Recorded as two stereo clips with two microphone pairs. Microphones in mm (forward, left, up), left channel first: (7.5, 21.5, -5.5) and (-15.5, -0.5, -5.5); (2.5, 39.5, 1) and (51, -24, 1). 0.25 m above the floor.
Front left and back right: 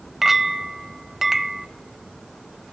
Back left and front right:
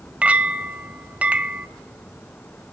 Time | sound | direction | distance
0.2 | a clink | 65° right | 0.5 m